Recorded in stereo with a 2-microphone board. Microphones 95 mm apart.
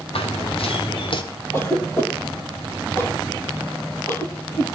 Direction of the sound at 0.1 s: 80° left.